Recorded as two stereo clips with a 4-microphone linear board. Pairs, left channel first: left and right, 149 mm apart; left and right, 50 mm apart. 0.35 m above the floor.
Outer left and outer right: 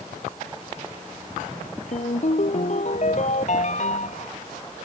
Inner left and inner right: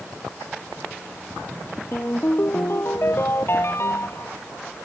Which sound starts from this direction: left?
A ringtone, at 1.9 s.